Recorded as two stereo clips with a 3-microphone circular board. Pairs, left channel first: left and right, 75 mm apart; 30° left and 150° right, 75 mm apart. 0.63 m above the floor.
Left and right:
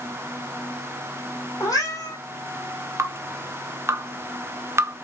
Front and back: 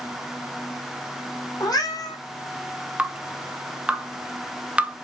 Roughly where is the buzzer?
I don't hear a buzzer.